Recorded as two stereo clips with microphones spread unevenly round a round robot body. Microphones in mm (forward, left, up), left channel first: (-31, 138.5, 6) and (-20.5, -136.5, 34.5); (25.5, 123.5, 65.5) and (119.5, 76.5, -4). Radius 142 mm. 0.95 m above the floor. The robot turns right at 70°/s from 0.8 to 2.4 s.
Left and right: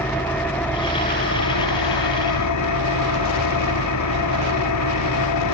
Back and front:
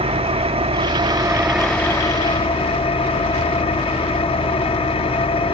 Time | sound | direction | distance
0.0 | an engine running | 10° left | 1.3 m